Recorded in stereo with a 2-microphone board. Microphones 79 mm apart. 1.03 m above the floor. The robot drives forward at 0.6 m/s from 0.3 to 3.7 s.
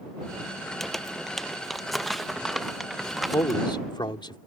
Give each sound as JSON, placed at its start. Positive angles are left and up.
{"t": 0.8, "sound": "crumpling", "side_deg": 5}
{"t": 3.3, "sound": "a man speaking", "side_deg": 70}